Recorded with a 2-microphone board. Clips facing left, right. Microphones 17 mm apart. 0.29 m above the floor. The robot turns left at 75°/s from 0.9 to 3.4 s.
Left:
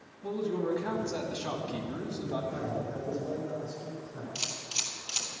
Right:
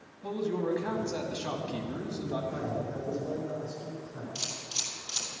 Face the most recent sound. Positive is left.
turn(degrees=85)